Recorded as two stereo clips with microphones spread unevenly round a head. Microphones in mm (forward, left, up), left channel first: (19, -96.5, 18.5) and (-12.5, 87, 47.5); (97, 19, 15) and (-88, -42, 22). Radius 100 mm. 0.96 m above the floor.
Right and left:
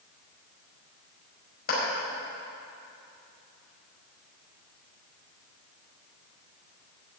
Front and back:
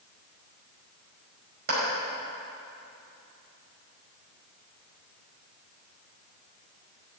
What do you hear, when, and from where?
1.7 s a clap: 125° right, 5 m